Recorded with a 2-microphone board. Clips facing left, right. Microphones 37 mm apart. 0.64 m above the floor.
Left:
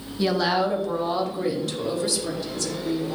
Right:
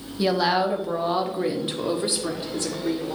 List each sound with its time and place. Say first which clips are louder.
0.2 s a woman speaking: right 1 dB; 5° right (ahead or behind), 1.1 m; by 3.1 s 35° right (ahead or behind), 2 m